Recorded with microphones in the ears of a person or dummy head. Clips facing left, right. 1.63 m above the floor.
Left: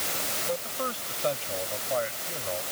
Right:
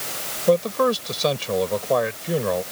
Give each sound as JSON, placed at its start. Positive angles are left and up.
{"t": 0.5, "sound": "a man speaking", "side_deg": -85}